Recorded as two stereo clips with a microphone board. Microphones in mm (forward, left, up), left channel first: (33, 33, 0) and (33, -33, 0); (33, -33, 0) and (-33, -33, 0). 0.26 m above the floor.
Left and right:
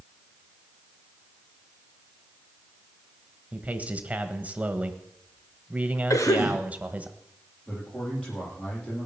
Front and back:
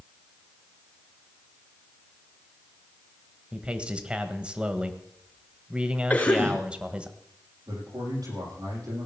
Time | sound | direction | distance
3.5 | a man speaking | 130° right | 1.3 m
6.1 | a cough | 65° left | 3.5 m
7.7 | a man speaking | 165° left | 10 m